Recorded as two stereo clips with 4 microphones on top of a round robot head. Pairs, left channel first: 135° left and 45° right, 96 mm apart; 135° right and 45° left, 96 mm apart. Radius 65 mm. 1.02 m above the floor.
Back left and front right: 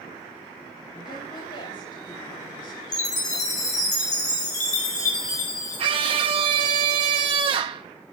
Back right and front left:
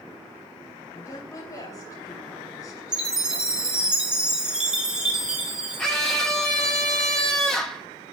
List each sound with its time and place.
0.9 s a woman speaking: 170° left, 3.5 m
2.9 s a chime: 130° left, 2.5 m
5.8 s a scream: 50° right, 0.8 m